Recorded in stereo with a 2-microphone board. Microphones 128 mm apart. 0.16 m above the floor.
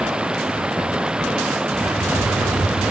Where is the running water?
5° right (ahead or behind).